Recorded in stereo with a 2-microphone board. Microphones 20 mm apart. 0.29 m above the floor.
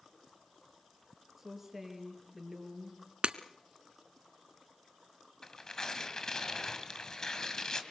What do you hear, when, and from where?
1.4 s a woman speaking: 10° right (ahead or behind), 6.5 m
3.2 s breaking glass: 60° right (ahead or behind), 1.1 m
5.4 s tearing paper: 30° left (ahead or behind), 2.5 m